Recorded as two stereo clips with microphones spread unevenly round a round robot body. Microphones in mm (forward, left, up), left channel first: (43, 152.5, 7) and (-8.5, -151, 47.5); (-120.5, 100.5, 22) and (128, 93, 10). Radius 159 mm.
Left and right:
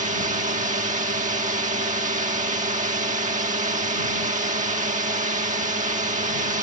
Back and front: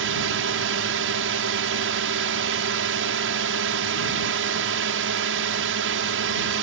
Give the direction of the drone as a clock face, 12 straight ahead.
1 o'clock.